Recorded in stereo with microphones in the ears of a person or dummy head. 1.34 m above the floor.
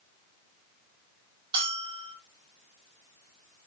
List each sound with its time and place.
1.5 s a bell: 35° right (ahead or behind), 1.5 m